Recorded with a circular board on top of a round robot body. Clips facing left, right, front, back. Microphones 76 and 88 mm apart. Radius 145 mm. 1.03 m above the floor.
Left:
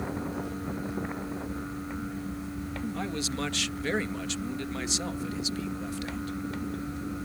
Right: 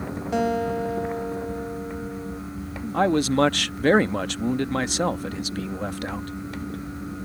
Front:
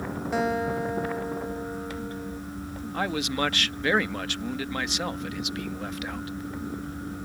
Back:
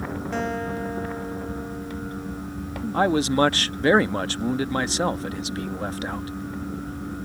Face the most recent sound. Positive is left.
turn(degrees=-125)